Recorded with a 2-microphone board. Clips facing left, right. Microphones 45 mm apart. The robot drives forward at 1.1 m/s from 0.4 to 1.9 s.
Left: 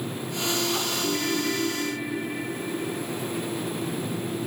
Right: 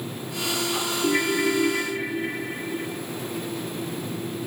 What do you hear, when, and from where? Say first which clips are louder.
1.0 s a ringtone: right 7 dB; 50° right (ahead or behind), 6.5 m; by 2.9 s 45° right (ahead or behind), 7.5 m